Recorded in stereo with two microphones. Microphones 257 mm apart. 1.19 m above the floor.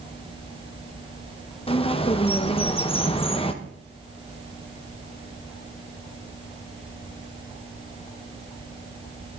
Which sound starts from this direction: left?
A bird, at 1.7 s.